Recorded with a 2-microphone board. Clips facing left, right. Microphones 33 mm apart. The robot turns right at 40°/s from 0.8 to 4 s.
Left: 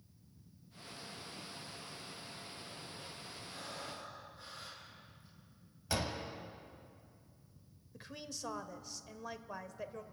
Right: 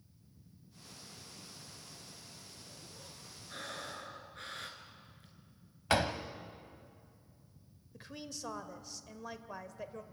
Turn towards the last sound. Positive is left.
turn(degrees=0)  # may be behind; listen again after turning